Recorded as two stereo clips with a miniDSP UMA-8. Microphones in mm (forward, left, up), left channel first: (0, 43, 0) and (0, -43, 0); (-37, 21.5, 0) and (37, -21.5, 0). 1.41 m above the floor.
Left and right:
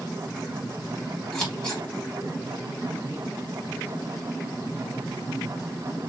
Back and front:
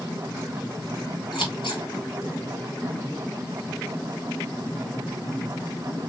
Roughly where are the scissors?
Behind.